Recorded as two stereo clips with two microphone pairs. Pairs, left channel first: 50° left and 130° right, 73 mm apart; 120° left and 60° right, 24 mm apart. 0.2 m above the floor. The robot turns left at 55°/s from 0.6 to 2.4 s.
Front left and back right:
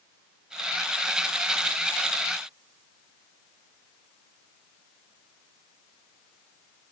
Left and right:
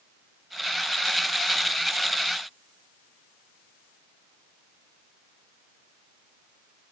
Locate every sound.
Only background noise.